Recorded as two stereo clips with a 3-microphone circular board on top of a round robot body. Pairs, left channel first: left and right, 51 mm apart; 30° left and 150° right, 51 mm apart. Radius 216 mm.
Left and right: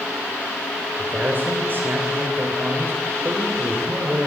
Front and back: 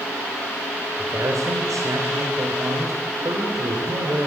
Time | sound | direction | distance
1.0 | a man speaking | 140° right | 3 m